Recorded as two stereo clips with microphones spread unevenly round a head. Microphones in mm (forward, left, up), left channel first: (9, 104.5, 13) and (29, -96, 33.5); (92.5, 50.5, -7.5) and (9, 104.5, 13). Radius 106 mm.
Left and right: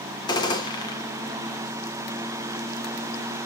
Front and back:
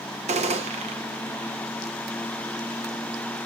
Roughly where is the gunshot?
Behind.